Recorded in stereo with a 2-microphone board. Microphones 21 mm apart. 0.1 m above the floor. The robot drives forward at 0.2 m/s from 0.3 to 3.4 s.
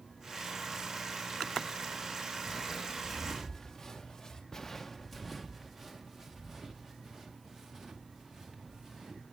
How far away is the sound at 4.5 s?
About 0.6 m.